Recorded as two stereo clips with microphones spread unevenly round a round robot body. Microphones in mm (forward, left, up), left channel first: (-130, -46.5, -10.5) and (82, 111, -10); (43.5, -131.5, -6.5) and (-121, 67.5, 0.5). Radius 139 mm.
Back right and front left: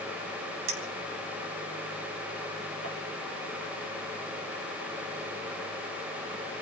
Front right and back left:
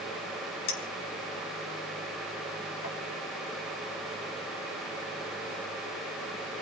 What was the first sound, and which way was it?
A clink, 15° right.